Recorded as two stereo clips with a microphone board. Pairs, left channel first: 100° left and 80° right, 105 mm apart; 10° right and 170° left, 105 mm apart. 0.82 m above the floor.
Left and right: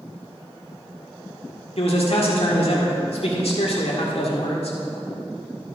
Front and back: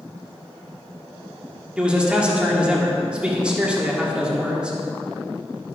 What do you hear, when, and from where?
1.8 s a man speaking: 90° left, 1.9 m